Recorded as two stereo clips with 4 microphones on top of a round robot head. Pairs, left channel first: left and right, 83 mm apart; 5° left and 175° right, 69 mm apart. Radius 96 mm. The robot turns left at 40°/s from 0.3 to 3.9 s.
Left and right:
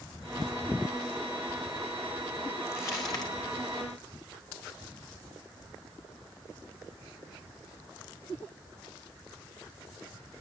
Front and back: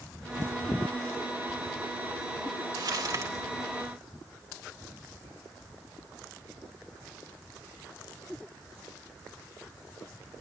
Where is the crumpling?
160° left, 3.5 m; by 3.3 s 135° left, 3.5 m.